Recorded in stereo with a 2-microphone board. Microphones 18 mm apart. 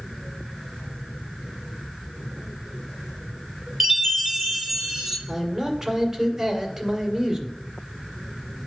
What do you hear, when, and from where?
3.8 s a chime: 10° right (ahead or behind), 1.8 m
5.3 s a man speaking: 15° right (ahead or behind), 1.9 m